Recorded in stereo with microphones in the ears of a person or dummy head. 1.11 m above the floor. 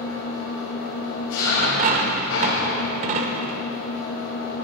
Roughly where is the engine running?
Left.